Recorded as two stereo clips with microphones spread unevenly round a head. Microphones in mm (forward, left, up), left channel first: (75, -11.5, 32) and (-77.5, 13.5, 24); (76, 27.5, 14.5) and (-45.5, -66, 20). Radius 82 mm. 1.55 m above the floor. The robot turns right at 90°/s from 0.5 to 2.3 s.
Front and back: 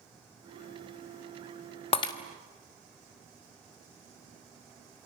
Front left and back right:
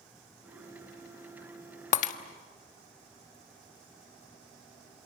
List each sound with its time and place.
1.9 s breaking glass: 25° left, 1.2 m; by 2.1 s 45° left, 1.2 m